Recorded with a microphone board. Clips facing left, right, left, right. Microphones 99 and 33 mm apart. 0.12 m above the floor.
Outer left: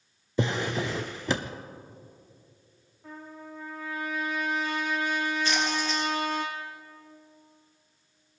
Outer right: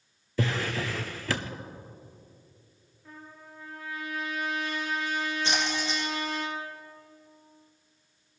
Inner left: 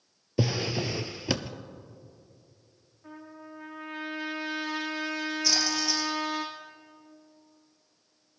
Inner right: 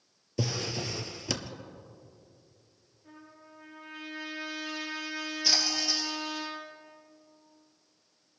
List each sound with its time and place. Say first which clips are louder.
0.4 s a drawer: outer left 2 dB, inner left 5 dB; 20° left (ahead or behind), 0.6 m
3.0 s a trumpet: outer left 5 dB, inner left 7 dB; 70° left (ahead or behind), 5 m
5.4 s a splash: outer left 2 dB, inner right 1 dB; 25° right (ahead or behind), 3.5 m